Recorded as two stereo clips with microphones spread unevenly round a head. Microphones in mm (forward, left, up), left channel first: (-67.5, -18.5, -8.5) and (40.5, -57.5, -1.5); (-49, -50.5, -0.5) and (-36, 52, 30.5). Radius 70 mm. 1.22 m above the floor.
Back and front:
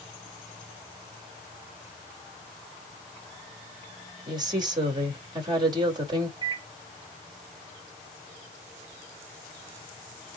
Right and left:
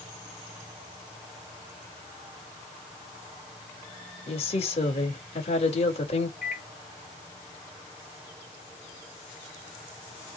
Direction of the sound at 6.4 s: 75° right.